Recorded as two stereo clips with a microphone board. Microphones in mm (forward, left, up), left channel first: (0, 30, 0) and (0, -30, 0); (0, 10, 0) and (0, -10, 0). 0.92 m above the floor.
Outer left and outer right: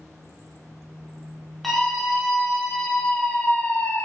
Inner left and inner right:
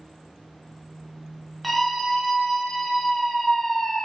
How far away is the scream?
About 2.5 m.